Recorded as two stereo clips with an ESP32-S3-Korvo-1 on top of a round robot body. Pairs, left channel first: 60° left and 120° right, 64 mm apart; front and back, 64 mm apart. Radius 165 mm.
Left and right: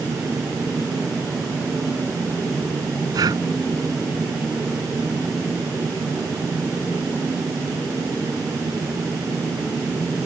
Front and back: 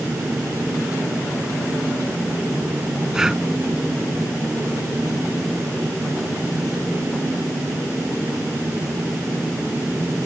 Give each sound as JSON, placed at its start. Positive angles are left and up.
{"t": 3.1, "sound": "breathing", "azimuth_deg": -100}